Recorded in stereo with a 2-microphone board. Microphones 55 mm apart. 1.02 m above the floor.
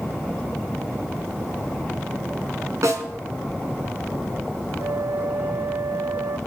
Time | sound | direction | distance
2.8 | a snare drum | 70° right (ahead or behind) | 2.5 m
4.8 | a flute | 70° right (ahead or behind) | 0.7 m